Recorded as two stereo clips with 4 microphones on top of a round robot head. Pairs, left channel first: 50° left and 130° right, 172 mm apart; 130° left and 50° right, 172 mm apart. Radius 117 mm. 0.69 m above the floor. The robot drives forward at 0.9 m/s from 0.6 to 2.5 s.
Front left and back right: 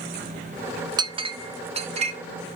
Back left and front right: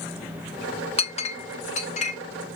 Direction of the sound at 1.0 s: 170° left.